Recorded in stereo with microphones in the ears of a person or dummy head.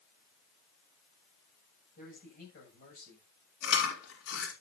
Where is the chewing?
70° left (ahead or behind), 5.5 m.